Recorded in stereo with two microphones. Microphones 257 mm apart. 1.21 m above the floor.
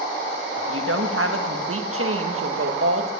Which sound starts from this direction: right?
A woman speaking, at 0.6 s.